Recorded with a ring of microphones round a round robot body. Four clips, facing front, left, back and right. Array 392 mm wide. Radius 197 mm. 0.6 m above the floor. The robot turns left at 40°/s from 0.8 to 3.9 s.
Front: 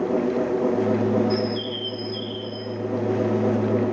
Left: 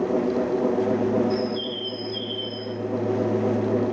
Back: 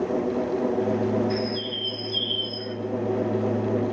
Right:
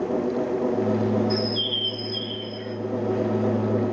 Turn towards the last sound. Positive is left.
turn(degrees=150)